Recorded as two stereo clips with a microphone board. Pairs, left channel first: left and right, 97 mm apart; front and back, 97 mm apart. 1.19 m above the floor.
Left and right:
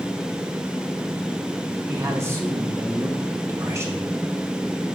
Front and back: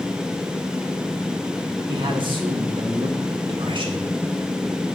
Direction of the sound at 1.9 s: 150° right.